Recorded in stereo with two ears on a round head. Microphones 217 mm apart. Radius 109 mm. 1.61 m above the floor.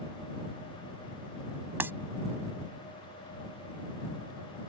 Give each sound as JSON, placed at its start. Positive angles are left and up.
{"t": 1.8, "sound": "breaking glass", "side_deg": -10}